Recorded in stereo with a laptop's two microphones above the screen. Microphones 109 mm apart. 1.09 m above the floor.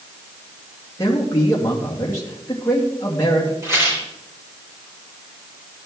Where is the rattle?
25° right (ahead or behind), 4 m.